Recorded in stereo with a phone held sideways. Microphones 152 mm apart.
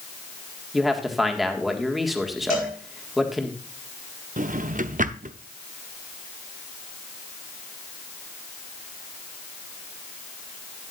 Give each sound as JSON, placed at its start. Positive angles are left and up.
{"t": 0.7, "sound": "a man speaking", "side_deg": 0, "distance_m": 1.7}
{"t": 2.5, "sound": "a cowbell", "side_deg": 65, "distance_m": 4.5}
{"t": 4.4, "sound": "a drawer", "side_deg": -60, "distance_m": 0.6}